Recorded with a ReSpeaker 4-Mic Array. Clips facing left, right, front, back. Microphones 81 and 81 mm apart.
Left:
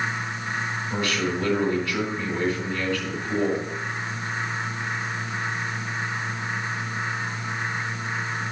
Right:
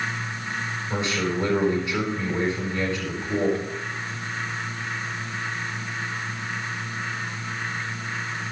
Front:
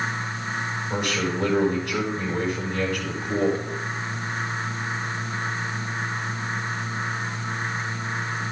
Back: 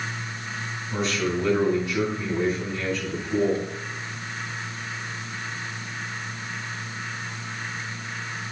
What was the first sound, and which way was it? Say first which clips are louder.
A man speaking: right 1 dB, back 2 dB; 25° right.